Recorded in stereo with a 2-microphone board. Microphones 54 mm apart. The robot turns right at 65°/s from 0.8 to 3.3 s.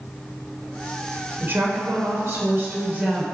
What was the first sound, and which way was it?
A woman speaking, 140° right.